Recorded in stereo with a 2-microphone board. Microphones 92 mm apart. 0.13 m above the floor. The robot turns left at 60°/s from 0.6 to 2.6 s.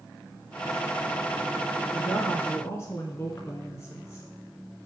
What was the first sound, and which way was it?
A woman speaking, 155° left.